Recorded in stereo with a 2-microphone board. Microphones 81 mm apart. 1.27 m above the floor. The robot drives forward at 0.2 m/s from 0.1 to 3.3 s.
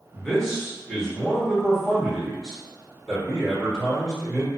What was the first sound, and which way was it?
A man speaking, 5° left (ahead or behind).